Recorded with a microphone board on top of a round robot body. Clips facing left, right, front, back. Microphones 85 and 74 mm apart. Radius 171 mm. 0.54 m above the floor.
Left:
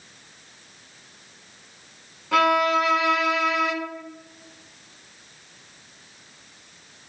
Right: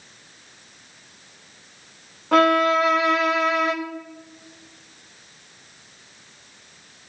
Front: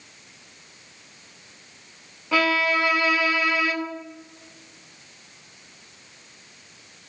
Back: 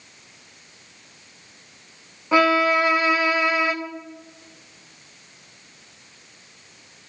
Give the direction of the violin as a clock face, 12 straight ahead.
4 o'clock.